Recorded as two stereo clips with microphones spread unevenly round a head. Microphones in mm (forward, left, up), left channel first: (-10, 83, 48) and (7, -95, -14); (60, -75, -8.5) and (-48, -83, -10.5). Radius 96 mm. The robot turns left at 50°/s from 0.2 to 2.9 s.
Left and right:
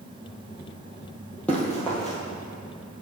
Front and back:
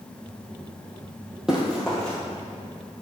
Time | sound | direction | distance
1.5 | running footsteps | 105° left | 1.6 m